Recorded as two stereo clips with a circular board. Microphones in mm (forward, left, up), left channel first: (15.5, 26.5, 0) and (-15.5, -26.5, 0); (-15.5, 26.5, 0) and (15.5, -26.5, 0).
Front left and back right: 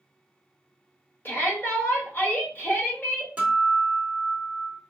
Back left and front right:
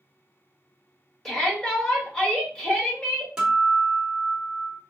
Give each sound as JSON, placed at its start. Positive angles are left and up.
{"t": 1.2, "sound": "a shout", "azimuth_deg": 40, "distance_m": 1.4}
{"t": 3.4, "sound": "a guitar", "azimuth_deg": -115, "distance_m": 1.1}